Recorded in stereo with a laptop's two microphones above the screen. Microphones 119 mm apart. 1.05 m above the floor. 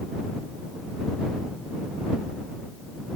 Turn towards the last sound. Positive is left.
No sound to turn to.